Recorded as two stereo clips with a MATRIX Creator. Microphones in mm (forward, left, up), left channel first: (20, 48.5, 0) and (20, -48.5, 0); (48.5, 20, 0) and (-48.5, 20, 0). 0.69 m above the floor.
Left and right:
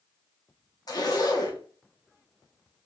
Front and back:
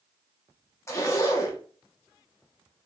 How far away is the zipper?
About 0.8 m.